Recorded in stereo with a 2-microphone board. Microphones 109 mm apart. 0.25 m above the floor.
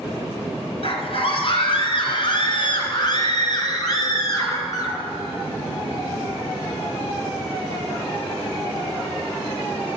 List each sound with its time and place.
0.8 s a scream: 60° left (ahead or behind), 3 m; by 5.0 s 35° left (ahead or behind), 4.5 m